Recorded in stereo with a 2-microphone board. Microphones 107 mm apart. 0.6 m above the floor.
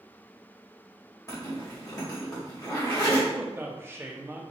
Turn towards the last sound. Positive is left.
turn(degrees=-20)  # may be behind; listen again after turning